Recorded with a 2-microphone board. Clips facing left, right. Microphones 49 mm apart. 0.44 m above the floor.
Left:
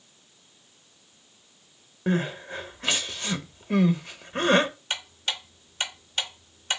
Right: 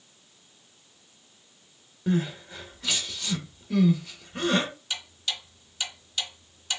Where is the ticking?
45° left (ahead or behind), 0.5 m.